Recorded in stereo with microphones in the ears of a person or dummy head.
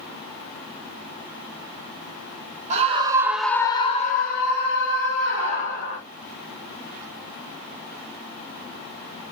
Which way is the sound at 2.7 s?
35° right (ahead or behind).